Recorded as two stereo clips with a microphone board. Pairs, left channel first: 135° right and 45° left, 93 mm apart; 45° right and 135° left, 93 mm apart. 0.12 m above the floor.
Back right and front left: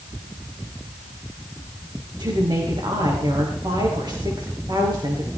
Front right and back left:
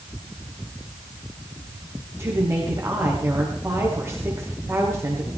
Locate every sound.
2.2 s a woman speaking: 80° left, 7.5 m